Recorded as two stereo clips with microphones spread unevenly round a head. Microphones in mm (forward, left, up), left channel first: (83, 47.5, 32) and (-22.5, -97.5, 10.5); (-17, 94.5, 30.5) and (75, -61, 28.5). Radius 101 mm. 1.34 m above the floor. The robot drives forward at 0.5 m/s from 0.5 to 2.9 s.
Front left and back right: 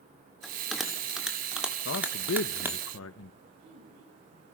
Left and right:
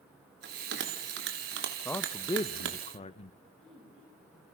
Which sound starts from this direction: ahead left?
A man speaking, at 1.9 s.